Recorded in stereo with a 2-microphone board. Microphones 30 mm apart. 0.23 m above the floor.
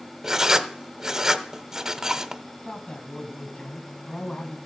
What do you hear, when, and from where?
0.2 s writing: 20° right (ahead or behind), 0.8 m
2.6 s a man speaking: 30° left (ahead or behind), 1.4 m